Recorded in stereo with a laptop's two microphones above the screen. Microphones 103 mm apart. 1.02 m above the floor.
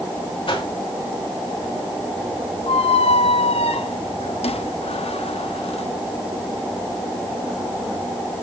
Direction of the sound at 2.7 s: 85° left.